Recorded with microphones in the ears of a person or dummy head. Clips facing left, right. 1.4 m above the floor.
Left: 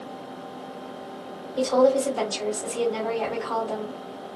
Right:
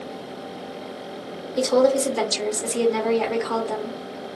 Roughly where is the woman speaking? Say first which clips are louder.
Right 1 dB; right.